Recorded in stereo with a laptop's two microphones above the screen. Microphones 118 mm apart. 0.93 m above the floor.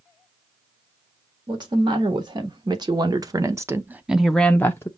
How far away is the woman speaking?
About 1.7 m.